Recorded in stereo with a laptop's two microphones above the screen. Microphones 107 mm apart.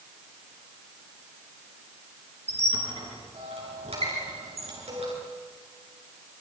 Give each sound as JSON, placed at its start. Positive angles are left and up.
{"t": 2.5, "sound": "a squeak", "side_deg": -85, "distance_m": 7.5}